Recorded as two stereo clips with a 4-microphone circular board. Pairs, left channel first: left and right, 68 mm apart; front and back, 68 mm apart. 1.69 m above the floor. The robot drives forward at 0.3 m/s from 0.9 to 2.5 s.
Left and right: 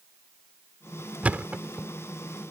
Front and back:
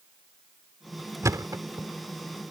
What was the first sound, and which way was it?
A thud, 155° right.